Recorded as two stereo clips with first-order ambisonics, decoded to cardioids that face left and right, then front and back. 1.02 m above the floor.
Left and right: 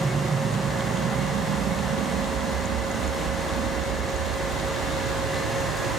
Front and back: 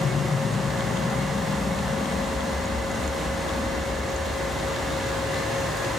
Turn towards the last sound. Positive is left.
turn(degrees=-90)